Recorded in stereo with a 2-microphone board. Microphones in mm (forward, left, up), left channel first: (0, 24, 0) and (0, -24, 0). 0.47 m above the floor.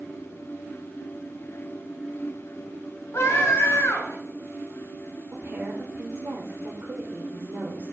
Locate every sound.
3.1 s a scream: 70° left (ahead or behind), 2.5 m
5.3 s a woman speaking: 55° right (ahead or behind), 1.5 m